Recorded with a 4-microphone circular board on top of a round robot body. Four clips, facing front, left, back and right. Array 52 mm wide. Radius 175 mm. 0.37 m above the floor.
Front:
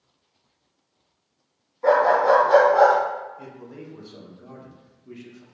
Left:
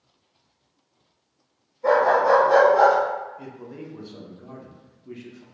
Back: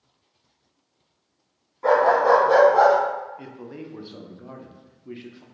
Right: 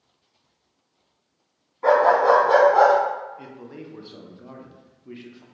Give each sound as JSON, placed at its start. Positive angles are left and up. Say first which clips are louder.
{"t": 1.8, "sound": "a dog barking", "louder": "right 2 dB, even", "azimuth_deg": -95, "distance_m": 2.0}
{"t": 3.4, "sound": "a man speaking", "louder": "left 1 dB, back 2 dB", "azimuth_deg": -155, "distance_m": 0.9}